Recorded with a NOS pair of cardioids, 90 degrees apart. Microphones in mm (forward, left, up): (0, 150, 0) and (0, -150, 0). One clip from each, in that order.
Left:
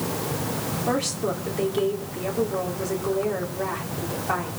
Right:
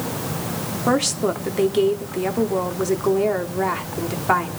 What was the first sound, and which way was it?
A woman speaking, 45° right.